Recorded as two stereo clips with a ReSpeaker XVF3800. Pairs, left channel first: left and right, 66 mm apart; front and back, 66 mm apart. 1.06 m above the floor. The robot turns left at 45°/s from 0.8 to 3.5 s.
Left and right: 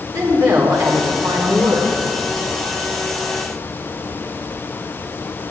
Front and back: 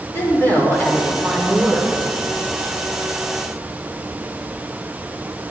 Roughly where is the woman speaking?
Ahead right.